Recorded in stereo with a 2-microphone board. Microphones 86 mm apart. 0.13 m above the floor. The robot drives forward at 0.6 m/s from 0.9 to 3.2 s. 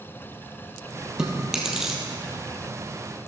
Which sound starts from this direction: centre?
Chewing, at 1.2 s.